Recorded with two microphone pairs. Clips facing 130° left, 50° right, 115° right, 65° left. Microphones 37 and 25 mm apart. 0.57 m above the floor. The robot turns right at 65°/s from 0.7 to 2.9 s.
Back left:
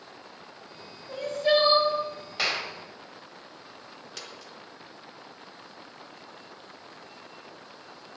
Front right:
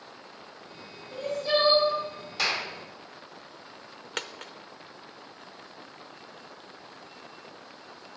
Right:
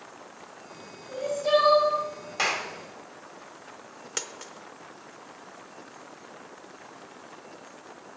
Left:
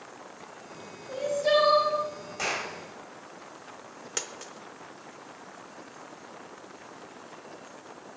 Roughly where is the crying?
Left.